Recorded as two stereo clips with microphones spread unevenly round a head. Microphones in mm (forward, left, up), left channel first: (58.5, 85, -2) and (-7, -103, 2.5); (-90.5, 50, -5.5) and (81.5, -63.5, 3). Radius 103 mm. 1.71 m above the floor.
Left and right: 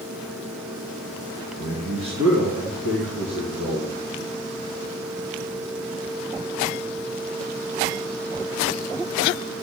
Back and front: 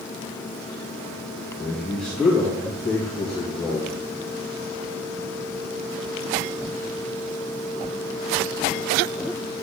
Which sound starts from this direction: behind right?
A man speaking, at 1.6 s.